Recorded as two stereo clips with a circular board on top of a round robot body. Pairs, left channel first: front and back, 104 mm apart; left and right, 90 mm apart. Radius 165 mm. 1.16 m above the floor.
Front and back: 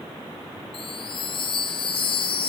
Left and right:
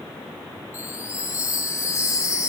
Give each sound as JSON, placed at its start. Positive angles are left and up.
{"t": 0.7, "sound": "a chime", "azimuth_deg": 35, "distance_m": 0.6}